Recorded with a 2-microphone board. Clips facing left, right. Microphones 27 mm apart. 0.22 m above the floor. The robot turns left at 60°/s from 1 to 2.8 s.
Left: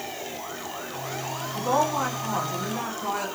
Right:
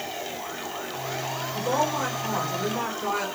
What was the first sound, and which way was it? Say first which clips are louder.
A woman speaking: left 2 dB; 55° left.